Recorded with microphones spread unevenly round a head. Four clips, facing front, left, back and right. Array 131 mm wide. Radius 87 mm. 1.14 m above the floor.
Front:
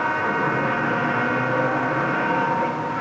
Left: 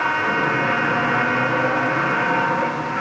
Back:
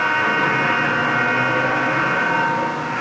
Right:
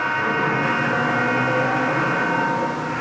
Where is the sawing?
No sawing in this recording.